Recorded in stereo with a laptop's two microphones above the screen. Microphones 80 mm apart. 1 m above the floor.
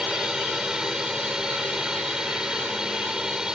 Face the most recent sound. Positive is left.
turn(degrees=-10)  # may be behind; listen again after turning